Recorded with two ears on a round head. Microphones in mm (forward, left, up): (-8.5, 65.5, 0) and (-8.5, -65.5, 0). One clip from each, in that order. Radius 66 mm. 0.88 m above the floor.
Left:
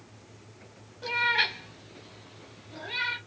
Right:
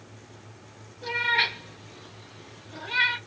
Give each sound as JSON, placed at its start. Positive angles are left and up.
{"t": 1.0, "sound": "a cat meowing", "side_deg": 20, "distance_m": 0.8}